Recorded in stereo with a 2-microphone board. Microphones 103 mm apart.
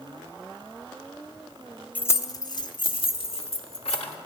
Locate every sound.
1.9 s keys jangling: 15° left (ahead or behind), 0.5 m; by 4.2 s 70° left (ahead or behind), 1.6 m